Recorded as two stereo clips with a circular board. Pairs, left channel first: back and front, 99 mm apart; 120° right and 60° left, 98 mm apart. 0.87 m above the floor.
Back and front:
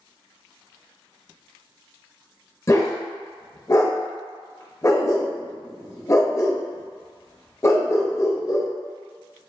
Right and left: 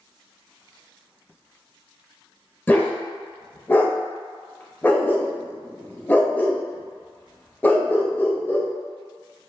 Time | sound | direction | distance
2.7 | a dog barking | 175° right | 0.6 m